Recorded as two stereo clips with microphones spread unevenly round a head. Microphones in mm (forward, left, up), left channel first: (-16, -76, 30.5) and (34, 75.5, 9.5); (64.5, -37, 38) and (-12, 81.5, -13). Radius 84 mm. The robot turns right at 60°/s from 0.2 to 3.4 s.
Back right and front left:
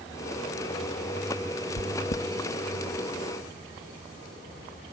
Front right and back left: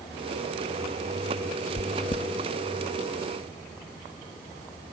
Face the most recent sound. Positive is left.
turn(degrees=-15)